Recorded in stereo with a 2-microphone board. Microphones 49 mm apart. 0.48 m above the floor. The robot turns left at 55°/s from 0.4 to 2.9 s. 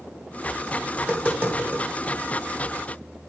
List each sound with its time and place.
1.0 s tapping: 15° right (ahead or behind), 2.0 m; by 1.9 s 55° right (ahead or behind), 2.0 m